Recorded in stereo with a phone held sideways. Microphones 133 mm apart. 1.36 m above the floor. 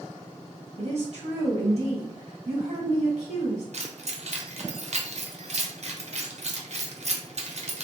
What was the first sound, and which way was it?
A woman speaking, 55° right (ahead or behind).